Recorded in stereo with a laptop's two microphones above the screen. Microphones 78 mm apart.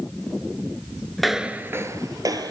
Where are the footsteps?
5° left (ahead or behind), 1.0 m; by 2.5 s 55° right (ahead or behind), 1.9 m.